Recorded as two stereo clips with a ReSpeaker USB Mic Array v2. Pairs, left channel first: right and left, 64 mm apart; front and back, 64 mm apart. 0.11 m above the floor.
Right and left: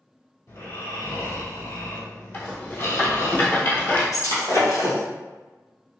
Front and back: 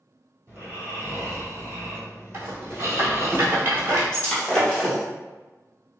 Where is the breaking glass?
80° right, 1.5 m.